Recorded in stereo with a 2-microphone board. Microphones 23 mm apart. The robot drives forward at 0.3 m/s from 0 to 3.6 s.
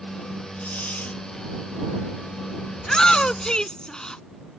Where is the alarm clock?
No alarm clock in this recording.